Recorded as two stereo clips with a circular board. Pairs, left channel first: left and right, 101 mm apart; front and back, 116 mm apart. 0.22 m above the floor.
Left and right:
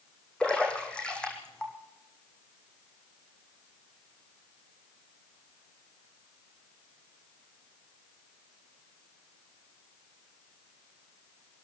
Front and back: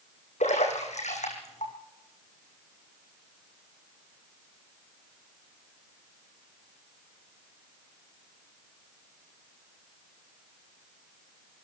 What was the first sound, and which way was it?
A splash, 10° left.